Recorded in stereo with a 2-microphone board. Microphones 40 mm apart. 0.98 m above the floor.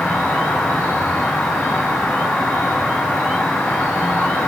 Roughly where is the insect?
Left.